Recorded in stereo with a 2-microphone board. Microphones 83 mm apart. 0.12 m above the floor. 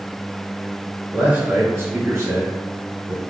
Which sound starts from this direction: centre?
A man speaking, at 1.1 s.